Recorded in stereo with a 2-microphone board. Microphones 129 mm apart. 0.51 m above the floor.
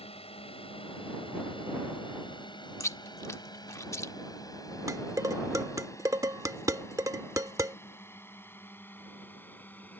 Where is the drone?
50° left (ahead or behind); by 10.0 s 15° left (ahead or behind).